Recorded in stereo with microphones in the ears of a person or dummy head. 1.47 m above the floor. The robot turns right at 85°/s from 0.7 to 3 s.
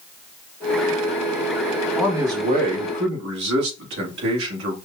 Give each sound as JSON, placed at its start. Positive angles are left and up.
{"t": 2.0, "sound": "a man speaking", "azimuth_deg": 180, "distance_m": 1.4}